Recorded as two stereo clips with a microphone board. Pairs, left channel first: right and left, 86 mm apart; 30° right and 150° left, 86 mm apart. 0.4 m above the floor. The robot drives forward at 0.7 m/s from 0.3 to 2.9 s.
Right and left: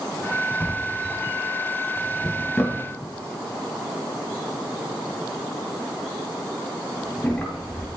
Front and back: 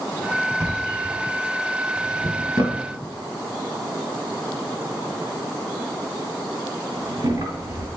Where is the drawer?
160° right, 0.9 m; by 7.9 s 175° right, 2.5 m.